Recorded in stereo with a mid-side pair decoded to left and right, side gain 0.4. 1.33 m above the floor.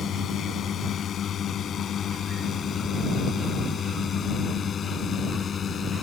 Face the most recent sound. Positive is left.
turn(degrees=55)